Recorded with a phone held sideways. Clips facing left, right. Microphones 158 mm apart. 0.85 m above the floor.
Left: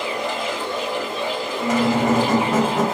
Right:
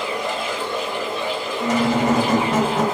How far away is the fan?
About 1.3 m.